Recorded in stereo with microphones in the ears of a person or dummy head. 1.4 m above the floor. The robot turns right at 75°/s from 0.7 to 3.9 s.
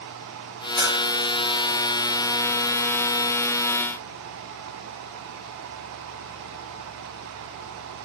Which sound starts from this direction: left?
A bell, at 0.8 s.